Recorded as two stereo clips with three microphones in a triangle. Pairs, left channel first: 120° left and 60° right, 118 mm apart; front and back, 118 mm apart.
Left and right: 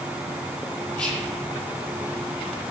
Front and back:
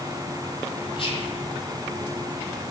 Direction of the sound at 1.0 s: 35° left.